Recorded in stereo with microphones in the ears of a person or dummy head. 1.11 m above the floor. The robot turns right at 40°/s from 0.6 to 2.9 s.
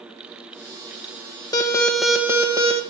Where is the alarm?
160° left, 1.4 m; by 2.8 s 150° right, 1.4 m.